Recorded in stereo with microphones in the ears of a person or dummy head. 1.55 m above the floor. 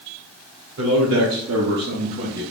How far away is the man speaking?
About 1.1 m.